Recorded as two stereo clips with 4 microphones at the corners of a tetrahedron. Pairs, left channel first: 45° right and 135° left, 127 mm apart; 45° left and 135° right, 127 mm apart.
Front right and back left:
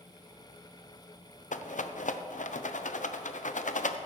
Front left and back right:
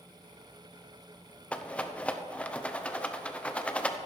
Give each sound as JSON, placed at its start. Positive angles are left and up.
{"t": 1.5, "sound": "a rattle", "azimuth_deg": -35, "distance_m": 0.6}